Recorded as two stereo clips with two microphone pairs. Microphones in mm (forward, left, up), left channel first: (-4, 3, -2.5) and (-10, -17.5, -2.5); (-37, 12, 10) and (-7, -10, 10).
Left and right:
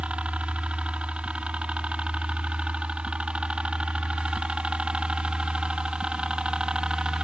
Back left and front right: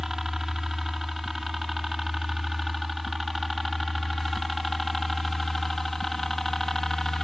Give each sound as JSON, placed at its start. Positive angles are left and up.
{"t": 0.0, "sound": "a helicopter", "azimuth_deg": -120}